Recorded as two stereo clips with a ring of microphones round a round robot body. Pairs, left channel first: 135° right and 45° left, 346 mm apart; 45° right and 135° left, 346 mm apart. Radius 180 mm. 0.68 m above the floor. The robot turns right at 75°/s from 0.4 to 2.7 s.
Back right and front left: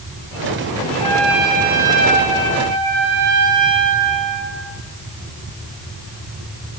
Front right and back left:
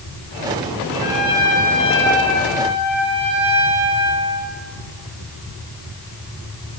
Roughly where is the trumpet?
Ahead right.